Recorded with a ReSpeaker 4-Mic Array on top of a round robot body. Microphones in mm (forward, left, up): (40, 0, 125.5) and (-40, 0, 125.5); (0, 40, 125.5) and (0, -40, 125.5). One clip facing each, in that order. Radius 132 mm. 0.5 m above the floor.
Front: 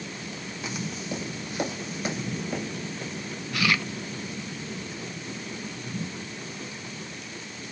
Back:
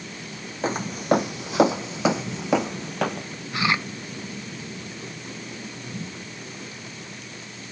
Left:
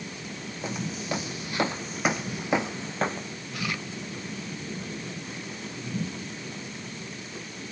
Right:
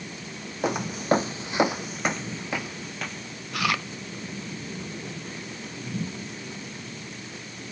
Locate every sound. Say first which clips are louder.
0.6 s footsteps: back 12 dB, right 8 dB; 120° right; by 3.3 s 145° left
3.5 s chewing: back 2 dB, right 7 dB; 110° right